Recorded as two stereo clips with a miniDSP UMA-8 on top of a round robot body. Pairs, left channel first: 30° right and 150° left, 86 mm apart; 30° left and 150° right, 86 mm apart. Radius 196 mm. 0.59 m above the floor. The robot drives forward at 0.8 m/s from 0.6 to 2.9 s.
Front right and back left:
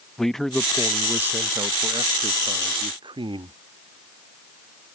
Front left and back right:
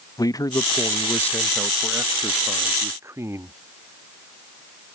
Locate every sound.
0.2 s a man speaking: 55° left; by 3.5 s 155° left